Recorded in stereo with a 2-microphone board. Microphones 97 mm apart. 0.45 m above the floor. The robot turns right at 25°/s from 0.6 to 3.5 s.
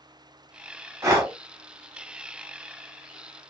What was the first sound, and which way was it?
Breathing, 35° right (ahead or behind).